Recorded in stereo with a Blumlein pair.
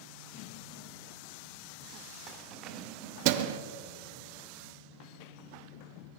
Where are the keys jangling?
35° right, 2.5 m; by 3.6 s 55° right, 0.8 m.